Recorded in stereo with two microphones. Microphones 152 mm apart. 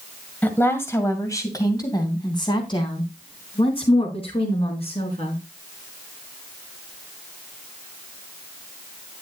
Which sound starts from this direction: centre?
A woman speaking, at 0.4 s.